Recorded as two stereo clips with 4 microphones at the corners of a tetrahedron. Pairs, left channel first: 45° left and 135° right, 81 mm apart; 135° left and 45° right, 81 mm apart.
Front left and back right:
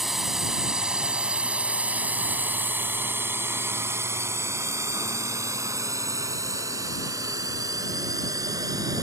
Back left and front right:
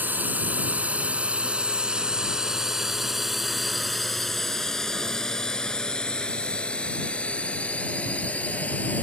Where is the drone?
55° right; by 9.0 s 155° right.